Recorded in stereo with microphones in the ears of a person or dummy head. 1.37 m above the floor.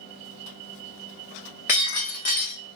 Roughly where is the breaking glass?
Left.